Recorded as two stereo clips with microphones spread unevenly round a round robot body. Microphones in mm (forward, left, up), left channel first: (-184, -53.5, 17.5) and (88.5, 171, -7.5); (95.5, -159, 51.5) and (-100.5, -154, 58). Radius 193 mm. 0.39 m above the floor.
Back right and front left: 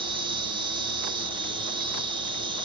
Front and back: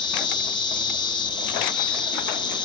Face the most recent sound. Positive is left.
turn(degrees=-5)